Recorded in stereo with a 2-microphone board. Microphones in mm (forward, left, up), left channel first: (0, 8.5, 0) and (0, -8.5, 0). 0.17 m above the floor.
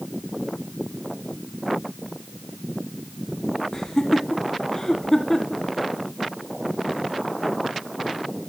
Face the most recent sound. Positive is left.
turn(degrees=30)  # may be behind; listen again after turning